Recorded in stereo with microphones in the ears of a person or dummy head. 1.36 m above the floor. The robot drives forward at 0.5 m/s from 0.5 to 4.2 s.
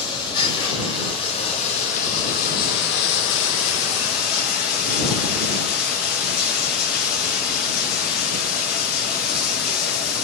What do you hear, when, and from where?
0.0 s running water: 25° left (ahead or behind), 1.6 m; by 10.2 s 50° left (ahead or behind), 0.9 m